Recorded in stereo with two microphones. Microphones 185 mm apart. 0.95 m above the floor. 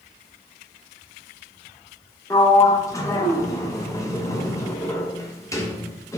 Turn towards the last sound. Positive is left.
turn(degrees=15)  # may be behind; listen again after turning